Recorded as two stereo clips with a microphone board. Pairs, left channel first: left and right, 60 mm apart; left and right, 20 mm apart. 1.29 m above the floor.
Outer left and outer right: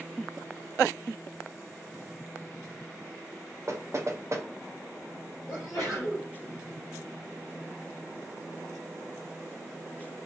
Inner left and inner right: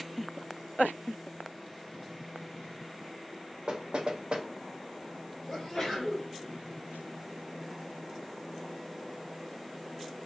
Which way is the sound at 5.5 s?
45° left (ahead or behind).